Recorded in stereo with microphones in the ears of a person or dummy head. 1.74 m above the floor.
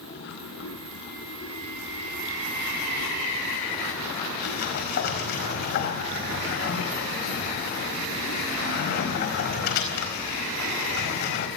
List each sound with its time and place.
0.0 s running water: 65° left (ahead or behind), 7.5 m
4.4 s a sliding door: 50° left (ahead or behind), 4.5 m